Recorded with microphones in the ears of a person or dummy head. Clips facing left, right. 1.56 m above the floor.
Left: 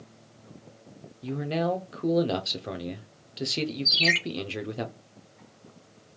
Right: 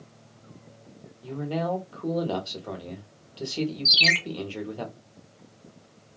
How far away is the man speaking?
About 0.6 m.